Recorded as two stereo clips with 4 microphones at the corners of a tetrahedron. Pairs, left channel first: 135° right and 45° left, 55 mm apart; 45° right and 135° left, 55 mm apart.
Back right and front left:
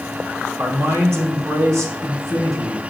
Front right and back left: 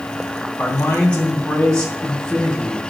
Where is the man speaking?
20° left, 1.6 m; by 2.8 s 30° left, 2.5 m.